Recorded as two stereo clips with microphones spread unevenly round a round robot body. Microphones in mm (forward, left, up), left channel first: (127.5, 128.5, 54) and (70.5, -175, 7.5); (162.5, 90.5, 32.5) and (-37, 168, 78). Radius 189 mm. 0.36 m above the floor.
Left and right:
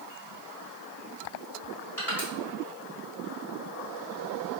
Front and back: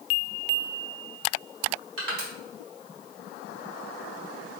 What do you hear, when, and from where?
2.0 s crushing: 170° left, 1.6 m